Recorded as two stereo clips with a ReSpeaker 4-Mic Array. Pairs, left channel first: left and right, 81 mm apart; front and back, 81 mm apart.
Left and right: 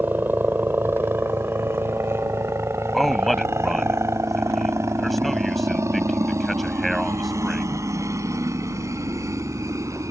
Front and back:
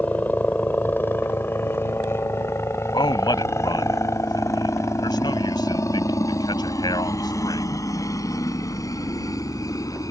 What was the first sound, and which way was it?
A helicopter, 50° right.